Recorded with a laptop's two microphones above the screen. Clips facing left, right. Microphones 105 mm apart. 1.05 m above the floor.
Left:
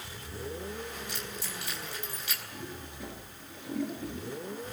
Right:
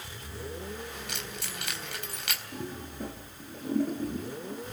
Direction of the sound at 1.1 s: 65° right (ahead or behind).